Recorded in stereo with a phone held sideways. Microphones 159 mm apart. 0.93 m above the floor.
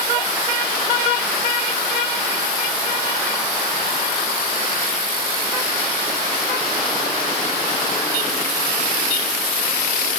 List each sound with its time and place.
Only background noise.